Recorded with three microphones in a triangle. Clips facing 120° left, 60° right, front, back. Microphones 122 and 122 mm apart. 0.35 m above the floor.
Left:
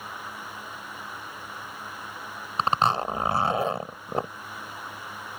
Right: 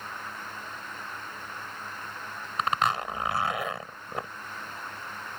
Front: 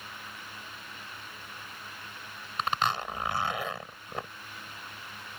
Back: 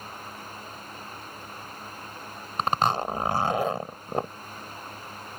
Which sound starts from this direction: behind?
A zipper, at 2.6 s.